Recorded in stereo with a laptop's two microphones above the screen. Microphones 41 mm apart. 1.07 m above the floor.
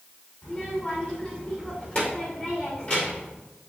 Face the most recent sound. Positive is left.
turn(degrees=30)  # may be behind; listen again after turning